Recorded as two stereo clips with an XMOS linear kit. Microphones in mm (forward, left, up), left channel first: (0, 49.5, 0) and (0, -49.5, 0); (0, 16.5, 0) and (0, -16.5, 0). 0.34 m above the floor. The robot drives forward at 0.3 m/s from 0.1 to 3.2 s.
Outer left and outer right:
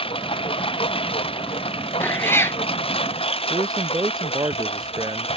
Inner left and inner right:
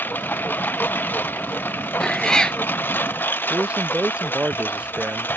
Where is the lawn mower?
65° left (ahead or behind); by 5.4 s 75° left (ahead or behind).